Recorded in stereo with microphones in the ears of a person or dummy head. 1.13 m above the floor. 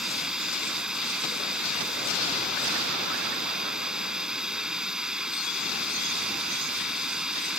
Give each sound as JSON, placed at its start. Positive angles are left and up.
{"t": 0.0, "sound": "running water", "side_deg": -5}